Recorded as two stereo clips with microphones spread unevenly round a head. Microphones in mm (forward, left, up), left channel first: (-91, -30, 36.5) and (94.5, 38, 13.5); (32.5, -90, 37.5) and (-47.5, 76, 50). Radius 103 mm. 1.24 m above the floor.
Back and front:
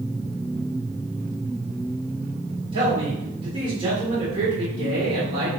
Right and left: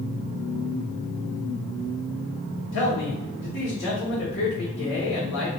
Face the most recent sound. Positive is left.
turn(degrees=-45)